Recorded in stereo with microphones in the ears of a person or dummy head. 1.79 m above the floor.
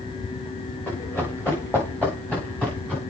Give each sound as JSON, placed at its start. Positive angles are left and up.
{"t": 0.9, "sound": "running footsteps", "side_deg": 10, "distance_m": 7.0}